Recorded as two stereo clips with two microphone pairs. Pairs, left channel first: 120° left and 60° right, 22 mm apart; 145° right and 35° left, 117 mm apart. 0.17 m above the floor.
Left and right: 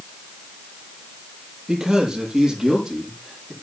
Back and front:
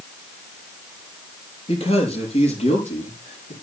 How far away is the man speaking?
About 5.5 m.